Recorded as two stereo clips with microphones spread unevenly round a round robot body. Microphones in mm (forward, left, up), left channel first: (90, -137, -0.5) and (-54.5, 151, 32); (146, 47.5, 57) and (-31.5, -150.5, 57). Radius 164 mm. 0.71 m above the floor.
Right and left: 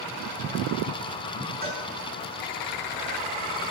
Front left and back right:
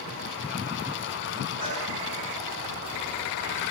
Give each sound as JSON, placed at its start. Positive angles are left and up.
{"t": 1.6, "sound": "a cowbell", "azimuth_deg": 180, "distance_m": 6.0}